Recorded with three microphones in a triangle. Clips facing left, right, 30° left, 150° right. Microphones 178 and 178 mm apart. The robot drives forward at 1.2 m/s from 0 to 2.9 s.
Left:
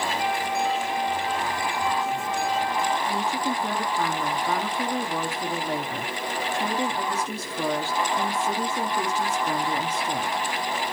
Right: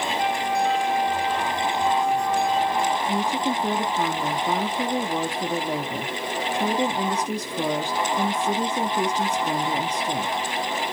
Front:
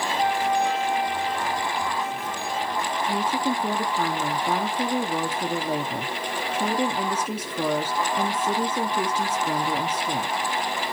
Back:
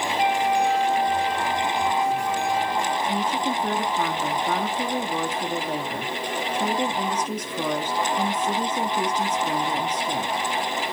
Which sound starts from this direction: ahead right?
A woman speaking, at 3.1 s.